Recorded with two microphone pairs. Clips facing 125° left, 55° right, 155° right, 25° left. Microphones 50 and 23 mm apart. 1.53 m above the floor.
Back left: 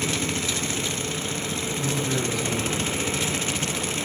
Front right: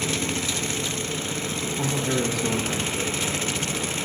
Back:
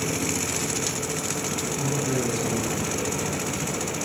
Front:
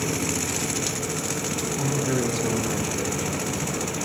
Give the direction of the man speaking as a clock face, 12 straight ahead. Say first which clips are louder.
Front right 2 dB, front 2 dB; 1 o'clock.